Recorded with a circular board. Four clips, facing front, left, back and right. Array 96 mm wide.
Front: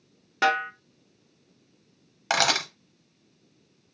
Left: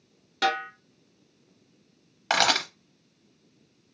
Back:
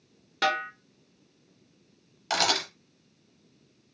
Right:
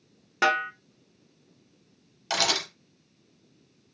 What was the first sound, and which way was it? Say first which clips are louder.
A snare drum: right 2 dB, front 4 dB; 60° right.